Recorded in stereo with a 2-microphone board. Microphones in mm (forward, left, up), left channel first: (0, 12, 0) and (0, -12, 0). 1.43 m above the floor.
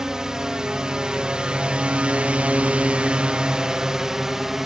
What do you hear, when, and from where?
0.0 s a drone: 25° right (ahead or behind); by 4.7 s 15° right (ahead or behind)